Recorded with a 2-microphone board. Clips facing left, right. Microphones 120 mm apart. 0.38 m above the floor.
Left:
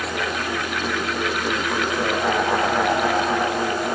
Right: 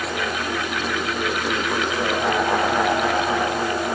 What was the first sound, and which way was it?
Only background noise.